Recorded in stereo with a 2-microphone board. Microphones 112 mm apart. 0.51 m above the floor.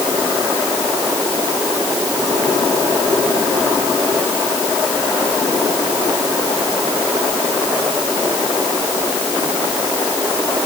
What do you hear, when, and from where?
Only background noise.